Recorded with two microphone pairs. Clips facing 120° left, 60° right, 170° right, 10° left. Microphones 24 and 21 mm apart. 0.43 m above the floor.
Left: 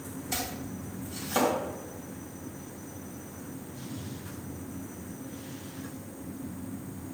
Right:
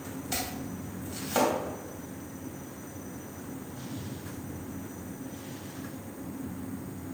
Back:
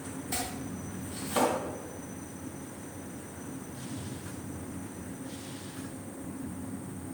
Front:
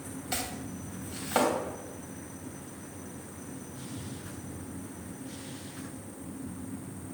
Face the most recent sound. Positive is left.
turn(degrees=20)